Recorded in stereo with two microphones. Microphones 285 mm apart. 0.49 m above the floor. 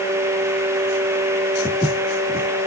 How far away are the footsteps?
About 1.5 m.